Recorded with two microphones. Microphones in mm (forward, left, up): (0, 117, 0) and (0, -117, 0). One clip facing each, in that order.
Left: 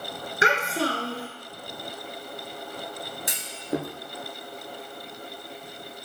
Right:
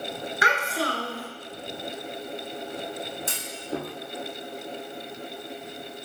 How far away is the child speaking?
About 1.3 m.